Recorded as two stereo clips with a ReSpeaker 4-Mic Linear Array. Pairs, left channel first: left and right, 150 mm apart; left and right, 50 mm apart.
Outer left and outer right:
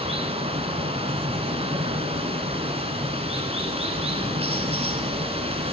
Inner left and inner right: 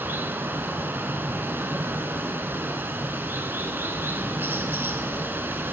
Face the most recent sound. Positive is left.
turn(degrees=-40)  # may be behind; listen again after turning